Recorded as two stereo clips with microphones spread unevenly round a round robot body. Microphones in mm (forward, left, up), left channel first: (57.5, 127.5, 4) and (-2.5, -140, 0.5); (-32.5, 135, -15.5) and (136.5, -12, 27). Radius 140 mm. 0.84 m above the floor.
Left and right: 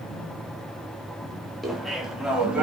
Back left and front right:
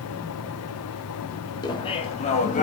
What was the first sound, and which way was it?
Laughter, 170° left.